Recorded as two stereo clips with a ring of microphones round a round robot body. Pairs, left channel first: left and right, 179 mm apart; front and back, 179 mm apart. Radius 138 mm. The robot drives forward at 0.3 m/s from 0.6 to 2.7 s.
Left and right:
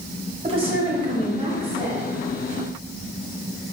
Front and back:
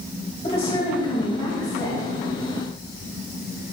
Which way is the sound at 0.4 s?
45° right.